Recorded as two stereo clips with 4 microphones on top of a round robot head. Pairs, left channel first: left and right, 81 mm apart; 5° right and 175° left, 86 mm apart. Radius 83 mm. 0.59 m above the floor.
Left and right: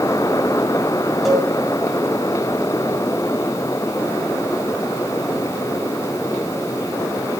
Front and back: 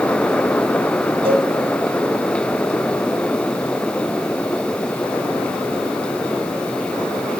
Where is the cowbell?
175° right, 2.5 m.